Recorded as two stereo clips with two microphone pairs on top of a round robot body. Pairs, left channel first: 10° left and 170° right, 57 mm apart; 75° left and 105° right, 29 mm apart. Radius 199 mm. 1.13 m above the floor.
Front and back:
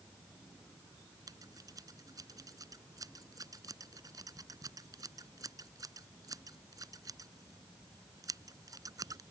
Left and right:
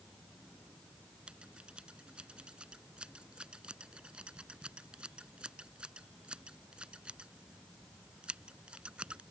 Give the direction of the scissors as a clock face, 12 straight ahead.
5 o'clock.